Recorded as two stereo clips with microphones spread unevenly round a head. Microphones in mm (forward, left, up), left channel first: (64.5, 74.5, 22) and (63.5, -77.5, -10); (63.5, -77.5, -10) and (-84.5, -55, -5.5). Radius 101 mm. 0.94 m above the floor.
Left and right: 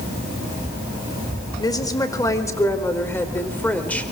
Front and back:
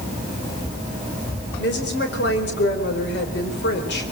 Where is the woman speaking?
25° left, 4.5 m; by 4.1 s 5° left, 4.5 m.